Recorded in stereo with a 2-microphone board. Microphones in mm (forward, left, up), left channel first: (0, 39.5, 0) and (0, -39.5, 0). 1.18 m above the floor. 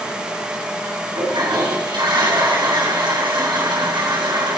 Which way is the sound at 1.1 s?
70° right (ahead or behind).